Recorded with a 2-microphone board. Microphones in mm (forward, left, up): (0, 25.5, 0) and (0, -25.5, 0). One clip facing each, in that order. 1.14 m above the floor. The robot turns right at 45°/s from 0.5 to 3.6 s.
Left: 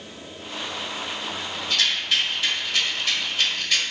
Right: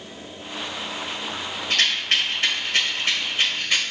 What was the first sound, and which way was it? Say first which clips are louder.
A rattle: right 2 dB; 45° right (ahead or behind).